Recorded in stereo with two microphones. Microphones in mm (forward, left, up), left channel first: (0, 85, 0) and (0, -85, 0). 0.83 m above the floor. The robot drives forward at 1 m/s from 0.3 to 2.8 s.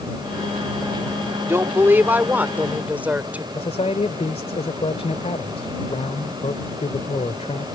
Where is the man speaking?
35° left (ahead or behind).